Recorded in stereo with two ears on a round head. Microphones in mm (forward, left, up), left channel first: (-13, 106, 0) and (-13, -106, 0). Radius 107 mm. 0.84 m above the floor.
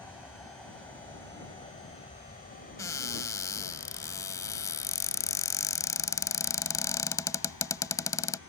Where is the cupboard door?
15° left (ahead or behind).